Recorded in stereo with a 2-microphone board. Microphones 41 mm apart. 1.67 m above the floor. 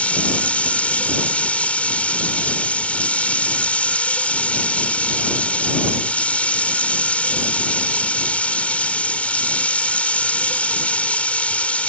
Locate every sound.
0.0 s running water: 35° left (ahead or behind)